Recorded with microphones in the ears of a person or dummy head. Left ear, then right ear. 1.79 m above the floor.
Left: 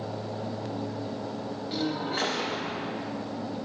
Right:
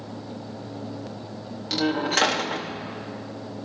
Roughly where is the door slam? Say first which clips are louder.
Right 8 dB; right.